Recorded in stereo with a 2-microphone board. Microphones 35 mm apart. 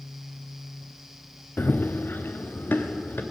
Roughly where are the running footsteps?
Left.